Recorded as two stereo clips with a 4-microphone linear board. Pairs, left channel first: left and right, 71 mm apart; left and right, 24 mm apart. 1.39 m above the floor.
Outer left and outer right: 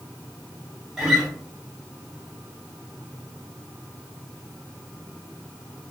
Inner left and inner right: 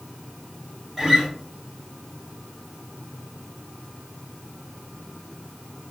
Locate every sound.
1.0 s a guitar: 5° right (ahead or behind), 1.3 m